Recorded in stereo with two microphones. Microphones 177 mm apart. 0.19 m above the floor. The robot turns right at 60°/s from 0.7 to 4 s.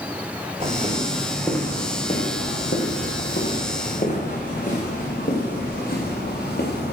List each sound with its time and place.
0.6 s footsteps: 40° right (ahead or behind), 5 m; by 6.9 s 60° left (ahead or behind), 5.5 m